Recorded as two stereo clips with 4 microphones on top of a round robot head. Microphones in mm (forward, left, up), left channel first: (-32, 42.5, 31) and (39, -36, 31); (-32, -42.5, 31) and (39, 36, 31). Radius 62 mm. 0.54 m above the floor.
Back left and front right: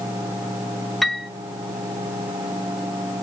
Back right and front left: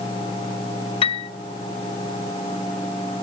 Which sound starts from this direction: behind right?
A piano, at 1.0 s.